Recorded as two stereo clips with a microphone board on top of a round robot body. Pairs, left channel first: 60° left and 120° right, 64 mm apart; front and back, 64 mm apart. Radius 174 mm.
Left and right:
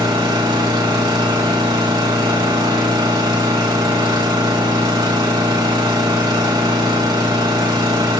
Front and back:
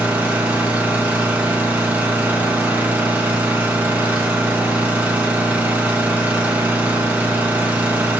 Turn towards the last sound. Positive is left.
turn(degrees=-110)